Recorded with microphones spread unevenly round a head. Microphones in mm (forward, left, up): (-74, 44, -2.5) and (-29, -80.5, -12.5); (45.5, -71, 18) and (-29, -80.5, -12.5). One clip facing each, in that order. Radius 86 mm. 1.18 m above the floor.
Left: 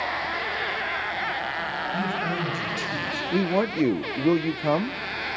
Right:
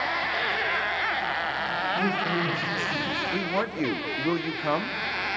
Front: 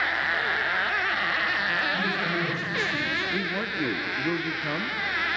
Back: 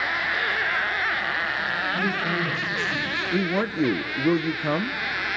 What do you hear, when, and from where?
1.9 s a man speaking: 95° left, 6 m
3.3 s a man speaking: 170° left, 0.5 m